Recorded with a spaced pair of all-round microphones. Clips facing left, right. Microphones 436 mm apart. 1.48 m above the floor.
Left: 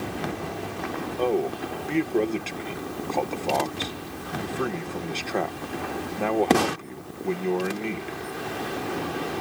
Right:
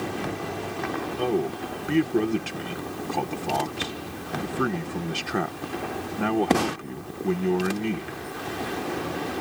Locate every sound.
1.2 s a man speaking: 25° right (ahead or behind)